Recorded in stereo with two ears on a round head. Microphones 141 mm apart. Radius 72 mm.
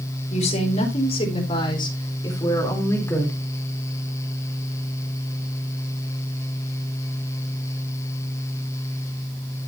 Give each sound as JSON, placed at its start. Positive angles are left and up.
{"t": 0.3, "sound": "a woman speaking", "side_deg": 45, "distance_m": 5.0}